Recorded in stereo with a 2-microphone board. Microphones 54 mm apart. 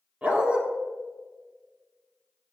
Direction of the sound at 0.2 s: 20° right (ahead or behind).